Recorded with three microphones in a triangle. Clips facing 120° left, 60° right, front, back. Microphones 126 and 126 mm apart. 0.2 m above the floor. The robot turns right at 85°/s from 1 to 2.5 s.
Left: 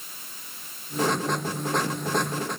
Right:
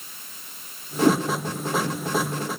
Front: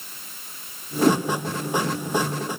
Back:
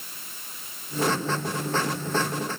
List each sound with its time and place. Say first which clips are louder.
1.0 s a whoosh: right 7 dB, front 7 dB; 40° right, 4.5 m; by 1.2 s 20° right, 4.5 m